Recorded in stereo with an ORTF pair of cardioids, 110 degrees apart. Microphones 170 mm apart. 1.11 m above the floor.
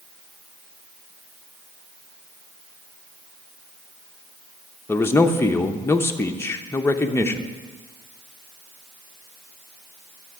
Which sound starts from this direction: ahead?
A man speaking, at 4.9 s.